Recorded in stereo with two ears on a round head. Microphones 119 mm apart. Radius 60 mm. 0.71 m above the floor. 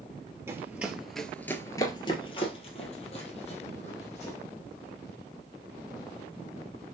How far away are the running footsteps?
About 0.9 m.